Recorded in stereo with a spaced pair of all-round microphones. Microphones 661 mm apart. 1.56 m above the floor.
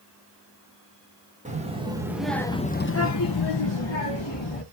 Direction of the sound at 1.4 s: 10° right (ahead or behind).